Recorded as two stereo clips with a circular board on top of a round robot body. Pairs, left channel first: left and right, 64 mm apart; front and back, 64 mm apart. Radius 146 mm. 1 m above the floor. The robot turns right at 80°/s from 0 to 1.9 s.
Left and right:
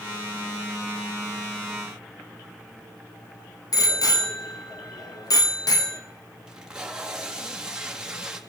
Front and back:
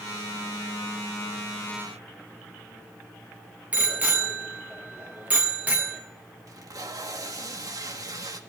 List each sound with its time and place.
3.7 s a bicycle bell: 110° left, 2 m
6.5 s tape being pulled: 170° right, 1.6 m